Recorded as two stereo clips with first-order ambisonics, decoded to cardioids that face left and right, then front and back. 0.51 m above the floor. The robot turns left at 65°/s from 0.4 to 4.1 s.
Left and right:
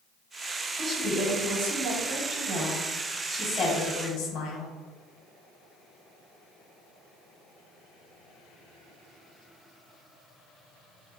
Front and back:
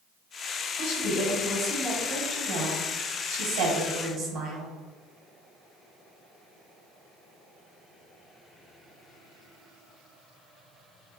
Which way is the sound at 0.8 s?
20° right.